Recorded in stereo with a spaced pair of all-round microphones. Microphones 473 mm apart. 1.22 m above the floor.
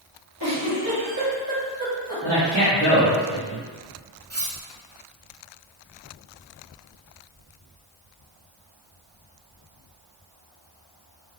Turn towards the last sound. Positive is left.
turn(degrees=-30)  # may be behind; listen again after turning